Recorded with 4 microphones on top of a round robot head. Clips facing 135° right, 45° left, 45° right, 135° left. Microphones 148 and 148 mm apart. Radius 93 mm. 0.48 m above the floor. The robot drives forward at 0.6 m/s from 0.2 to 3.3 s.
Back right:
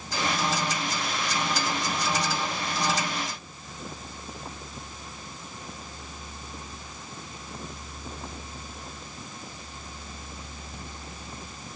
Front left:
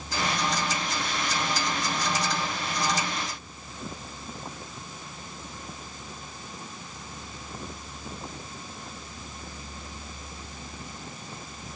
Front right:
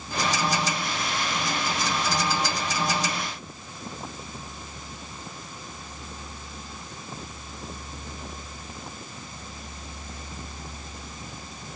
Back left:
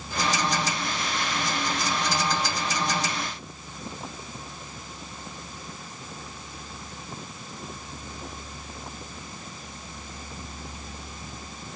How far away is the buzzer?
I don't hear a buzzer.